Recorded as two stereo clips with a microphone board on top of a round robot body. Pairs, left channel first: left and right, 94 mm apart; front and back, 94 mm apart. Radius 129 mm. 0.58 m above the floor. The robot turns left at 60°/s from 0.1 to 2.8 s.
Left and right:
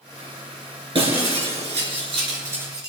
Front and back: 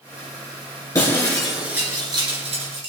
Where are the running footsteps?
No running footsteps in this recording.